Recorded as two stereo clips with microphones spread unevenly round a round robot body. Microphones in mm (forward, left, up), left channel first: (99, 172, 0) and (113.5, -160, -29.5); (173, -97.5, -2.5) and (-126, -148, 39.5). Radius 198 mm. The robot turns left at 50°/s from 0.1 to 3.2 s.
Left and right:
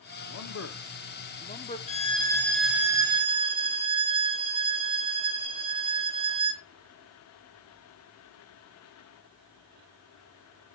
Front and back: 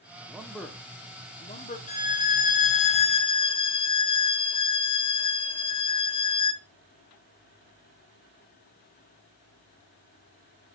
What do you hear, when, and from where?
0.3 s a man speaking: 100° left, 0.7 m; by 1.8 s 25° left, 0.7 m
1.9 s a violin: 30° left, 1.0 m; by 6.6 s 35° right, 1.0 m